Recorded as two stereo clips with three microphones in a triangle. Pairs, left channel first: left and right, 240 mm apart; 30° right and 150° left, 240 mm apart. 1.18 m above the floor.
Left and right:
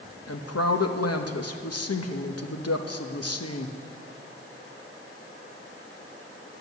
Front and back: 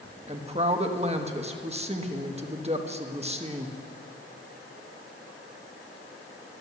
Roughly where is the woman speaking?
Left.